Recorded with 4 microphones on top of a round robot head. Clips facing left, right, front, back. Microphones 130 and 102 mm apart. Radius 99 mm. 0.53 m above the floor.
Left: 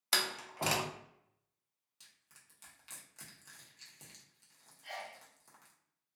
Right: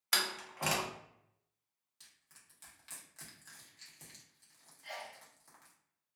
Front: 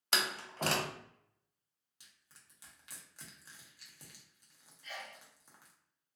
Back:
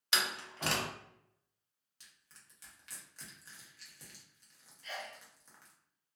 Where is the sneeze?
175° left, 0.9 m.